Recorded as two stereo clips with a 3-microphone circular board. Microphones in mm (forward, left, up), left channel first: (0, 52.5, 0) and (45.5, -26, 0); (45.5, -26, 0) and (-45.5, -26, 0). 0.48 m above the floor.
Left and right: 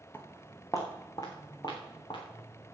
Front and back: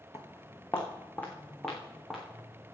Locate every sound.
0.1 s footsteps: 50° left, 2 m; by 2.7 s 95° left, 3.5 m